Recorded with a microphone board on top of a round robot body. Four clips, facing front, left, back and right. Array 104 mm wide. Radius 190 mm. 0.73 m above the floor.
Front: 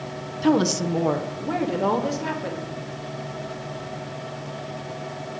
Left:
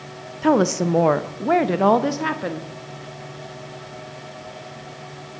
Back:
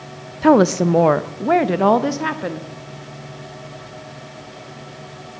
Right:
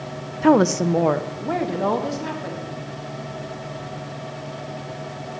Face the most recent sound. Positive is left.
turn(degrees=135)